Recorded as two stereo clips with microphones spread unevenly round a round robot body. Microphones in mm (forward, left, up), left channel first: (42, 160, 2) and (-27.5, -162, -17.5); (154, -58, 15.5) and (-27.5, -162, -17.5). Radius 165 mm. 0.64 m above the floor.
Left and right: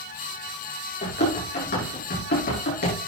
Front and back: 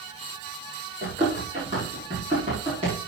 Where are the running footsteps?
140° left, 7 m; by 3.0 s 135° left, 6 m.